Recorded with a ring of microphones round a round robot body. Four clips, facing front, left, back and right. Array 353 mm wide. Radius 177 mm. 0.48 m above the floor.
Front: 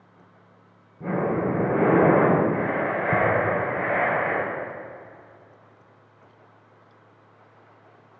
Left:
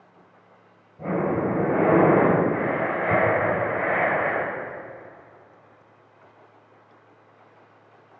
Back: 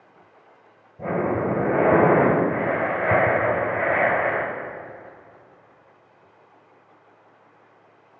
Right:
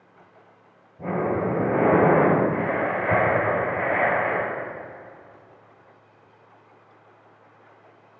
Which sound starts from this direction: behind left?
Breathing, at 1.0 s.